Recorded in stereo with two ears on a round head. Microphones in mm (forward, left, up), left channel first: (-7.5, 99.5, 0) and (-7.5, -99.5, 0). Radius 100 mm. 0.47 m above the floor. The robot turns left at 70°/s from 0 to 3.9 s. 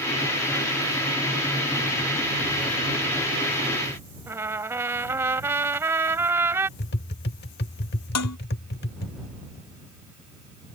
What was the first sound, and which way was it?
A trumpet, 10° right (ahead or behind).